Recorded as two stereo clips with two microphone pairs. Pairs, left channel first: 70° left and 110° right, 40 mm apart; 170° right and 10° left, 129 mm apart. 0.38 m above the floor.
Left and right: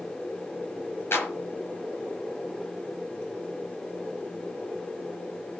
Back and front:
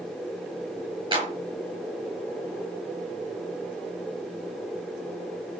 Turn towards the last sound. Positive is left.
turn(degrees=55)